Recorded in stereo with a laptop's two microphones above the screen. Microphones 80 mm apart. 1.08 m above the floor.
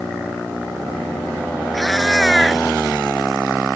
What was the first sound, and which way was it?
A cat meowing, centre (ahead or behind).